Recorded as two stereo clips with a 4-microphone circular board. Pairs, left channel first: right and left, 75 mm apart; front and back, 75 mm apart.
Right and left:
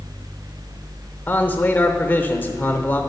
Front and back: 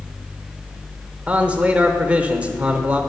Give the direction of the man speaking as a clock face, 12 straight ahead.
4 o'clock.